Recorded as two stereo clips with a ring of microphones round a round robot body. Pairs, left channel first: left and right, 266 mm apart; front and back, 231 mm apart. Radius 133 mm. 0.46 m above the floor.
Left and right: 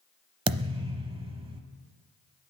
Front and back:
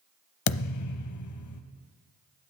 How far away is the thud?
About 0.8 m.